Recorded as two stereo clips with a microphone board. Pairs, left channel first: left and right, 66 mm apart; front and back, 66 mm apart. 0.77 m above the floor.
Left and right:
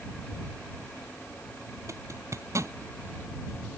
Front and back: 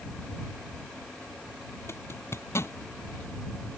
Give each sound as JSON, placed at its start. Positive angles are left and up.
{"t": 1.9, "sound": "a zipper", "azimuth_deg": -50}